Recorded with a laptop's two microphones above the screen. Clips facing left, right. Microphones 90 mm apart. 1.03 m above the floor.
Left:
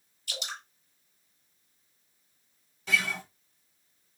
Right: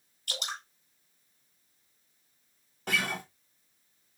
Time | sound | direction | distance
0.3 | dripping | 55° right (ahead or behind) | 2 m
2.9 | a guitar | 55° right (ahead or behind) | 1.0 m